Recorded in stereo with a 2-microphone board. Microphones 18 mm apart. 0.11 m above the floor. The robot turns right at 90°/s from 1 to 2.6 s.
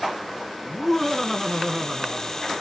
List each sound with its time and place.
0.7 s laughter: 15° left (ahead or behind), 1.5 m; by 2.5 s 25° right (ahead or behind), 1.5 m